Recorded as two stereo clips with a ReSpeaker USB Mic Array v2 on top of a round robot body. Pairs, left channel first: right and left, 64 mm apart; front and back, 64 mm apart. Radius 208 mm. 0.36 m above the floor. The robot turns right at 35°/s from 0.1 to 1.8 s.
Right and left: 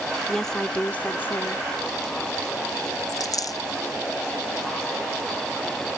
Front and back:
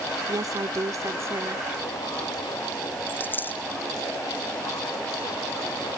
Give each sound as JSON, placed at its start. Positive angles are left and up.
{"t": 0.3, "sound": "a woman speaking", "azimuth_deg": 180}
{"t": 3.1, "sound": "a dropped coin", "azimuth_deg": -65}